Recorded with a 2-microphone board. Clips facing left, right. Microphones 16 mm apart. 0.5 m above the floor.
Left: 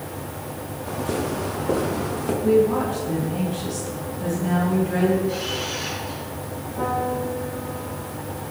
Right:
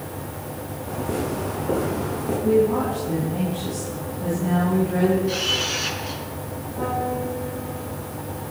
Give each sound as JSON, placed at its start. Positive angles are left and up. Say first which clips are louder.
{"t": 0.9, "sound": "footsteps", "louder": "left 1 dB", "side_deg": 75, "distance_m": 7.5}
{"t": 2.4, "sound": "a woman speaking", "louder": "left 1 dB", "side_deg": 40, "distance_m": 6.5}
{"t": 5.3, "sound": "a camera shutter", "louder": "right 4 dB", "side_deg": -65, "distance_m": 3.5}
{"t": 6.8, "sound": "a piano", "louder": "left 1 dB", "side_deg": 65, "distance_m": 8.0}